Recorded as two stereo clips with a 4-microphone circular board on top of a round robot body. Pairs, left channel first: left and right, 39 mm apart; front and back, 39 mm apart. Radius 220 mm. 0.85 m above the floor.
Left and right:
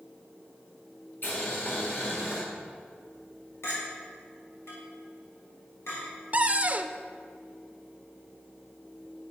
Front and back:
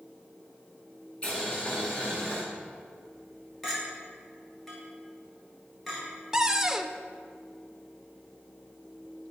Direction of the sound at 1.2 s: 60° left.